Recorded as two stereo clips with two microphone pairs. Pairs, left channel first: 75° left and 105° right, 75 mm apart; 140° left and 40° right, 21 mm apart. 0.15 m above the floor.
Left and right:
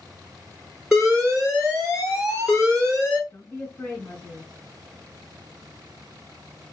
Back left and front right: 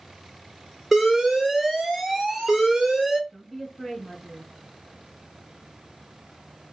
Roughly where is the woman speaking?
Ahead left.